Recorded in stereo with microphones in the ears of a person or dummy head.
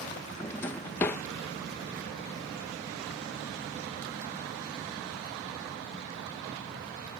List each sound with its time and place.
0.4 s a drawer: 10° left (ahead or behind)